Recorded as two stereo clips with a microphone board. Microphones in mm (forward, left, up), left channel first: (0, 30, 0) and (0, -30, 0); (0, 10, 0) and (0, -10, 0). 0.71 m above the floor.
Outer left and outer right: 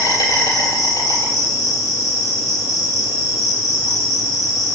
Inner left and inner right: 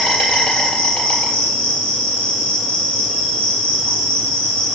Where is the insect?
80° left, 3 m.